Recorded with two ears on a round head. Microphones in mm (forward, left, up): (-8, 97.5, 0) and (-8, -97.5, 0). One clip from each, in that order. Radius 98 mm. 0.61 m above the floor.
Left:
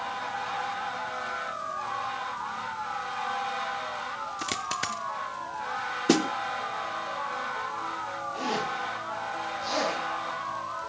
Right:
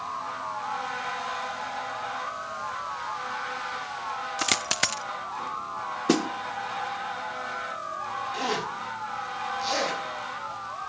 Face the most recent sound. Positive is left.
turn(degrees=-40)  # may be behind; listen again after turning